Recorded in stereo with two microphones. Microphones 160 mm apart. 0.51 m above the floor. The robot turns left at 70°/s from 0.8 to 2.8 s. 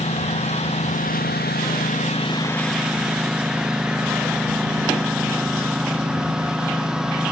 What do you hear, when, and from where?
0.0 s a lawn mower: 135° left; by 7.3 s 5° right